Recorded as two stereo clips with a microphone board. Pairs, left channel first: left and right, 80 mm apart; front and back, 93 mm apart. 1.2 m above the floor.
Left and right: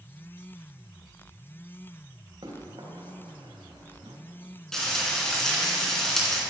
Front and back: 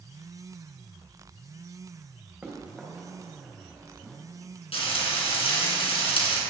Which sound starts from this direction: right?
Running footsteps, at 2.4 s.